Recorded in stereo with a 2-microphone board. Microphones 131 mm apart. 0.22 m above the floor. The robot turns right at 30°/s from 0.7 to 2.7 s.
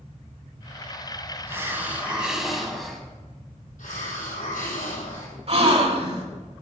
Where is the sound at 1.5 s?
35° right, 1.2 m; by 3.0 s 5° left, 1.2 m.